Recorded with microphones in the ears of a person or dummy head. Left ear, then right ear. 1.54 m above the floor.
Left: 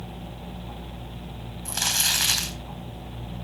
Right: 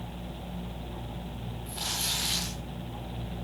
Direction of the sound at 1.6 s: 65° left (ahead or behind).